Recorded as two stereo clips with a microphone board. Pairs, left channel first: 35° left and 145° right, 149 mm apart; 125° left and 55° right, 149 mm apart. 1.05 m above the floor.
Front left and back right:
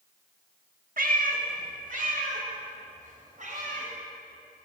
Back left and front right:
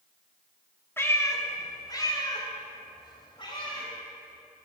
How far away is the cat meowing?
About 1.2 m.